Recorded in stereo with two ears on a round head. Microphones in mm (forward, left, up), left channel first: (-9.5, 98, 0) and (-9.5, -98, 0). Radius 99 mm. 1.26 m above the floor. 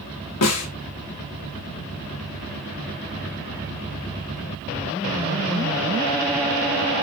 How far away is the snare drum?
About 3 m.